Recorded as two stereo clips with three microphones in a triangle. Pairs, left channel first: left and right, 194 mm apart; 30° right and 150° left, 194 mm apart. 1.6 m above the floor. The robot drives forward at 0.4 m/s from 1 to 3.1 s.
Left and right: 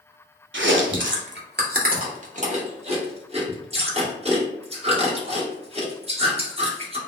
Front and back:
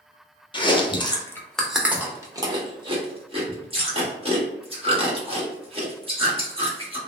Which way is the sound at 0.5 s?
100° right.